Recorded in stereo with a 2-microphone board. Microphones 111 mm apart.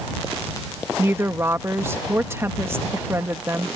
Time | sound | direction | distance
1.0 | a woman speaking | 20° right (ahead or behind) | ?